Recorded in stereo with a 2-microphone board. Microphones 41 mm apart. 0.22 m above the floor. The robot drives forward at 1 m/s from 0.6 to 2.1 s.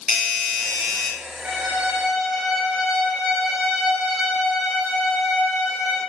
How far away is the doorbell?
About 1.4 m.